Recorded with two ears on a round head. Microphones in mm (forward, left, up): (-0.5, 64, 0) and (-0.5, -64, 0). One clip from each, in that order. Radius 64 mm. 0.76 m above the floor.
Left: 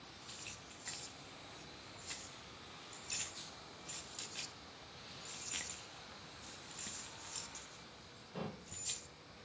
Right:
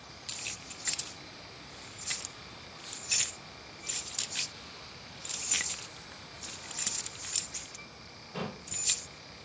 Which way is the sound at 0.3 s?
40° right (ahead or behind).